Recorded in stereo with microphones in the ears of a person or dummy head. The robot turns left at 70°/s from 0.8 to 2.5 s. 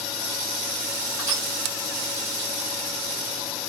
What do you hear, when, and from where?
1.2 s crushing: 15° right (ahead or behind), 1.2 m; by 1.5 s 35° right (ahead or behind), 1.2 m